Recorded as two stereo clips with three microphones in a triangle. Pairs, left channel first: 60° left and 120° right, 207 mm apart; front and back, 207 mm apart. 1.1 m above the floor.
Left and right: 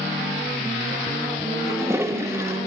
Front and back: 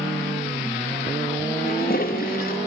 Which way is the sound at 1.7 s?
40° right.